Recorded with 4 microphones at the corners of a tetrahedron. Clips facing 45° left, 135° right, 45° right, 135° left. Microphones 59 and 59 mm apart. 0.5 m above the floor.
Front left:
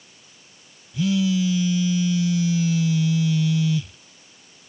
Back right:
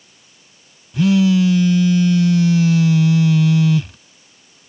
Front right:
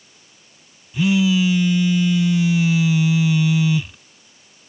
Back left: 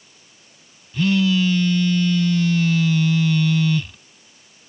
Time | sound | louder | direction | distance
0.9 | a phone buzzing | back right 7 dB, front right 1 dB | 125° right | ?